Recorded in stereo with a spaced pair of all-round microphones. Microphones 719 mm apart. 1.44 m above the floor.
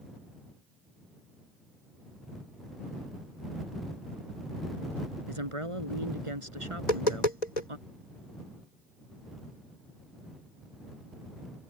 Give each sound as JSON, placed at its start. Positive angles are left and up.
{"t": 5.3, "sound": "a woman speaking", "side_deg": -45}
{"t": 6.8, "sound": "tapping", "side_deg": 70}